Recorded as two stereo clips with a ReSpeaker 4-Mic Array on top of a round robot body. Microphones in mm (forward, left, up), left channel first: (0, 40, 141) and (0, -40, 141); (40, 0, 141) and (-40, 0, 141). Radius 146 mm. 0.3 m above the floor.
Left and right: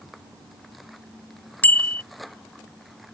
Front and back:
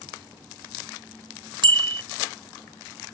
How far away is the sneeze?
I don't hear a sneeze.